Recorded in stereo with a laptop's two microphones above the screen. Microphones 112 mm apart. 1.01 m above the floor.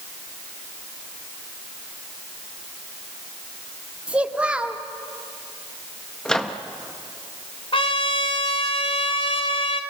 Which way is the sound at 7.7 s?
55° left (ahead or behind).